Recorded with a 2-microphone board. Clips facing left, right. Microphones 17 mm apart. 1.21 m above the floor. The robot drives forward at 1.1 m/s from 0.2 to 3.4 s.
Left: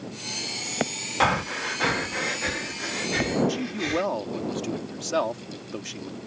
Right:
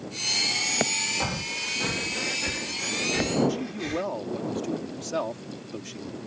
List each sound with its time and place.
1.2 s breathing: 70° left (ahead or behind); by 4.1 s 15° left (ahead or behind)
3.5 s a man speaking: 30° left (ahead or behind)